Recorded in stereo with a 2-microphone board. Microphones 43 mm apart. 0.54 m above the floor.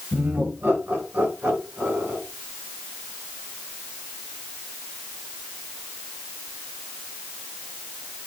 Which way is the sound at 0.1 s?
45° right (ahead or behind).